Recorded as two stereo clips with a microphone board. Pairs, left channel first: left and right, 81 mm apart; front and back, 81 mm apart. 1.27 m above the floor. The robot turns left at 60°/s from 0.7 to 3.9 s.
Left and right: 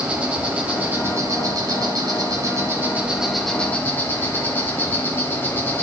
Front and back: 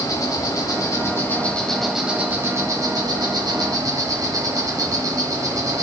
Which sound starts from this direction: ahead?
An insect, at 0.0 s.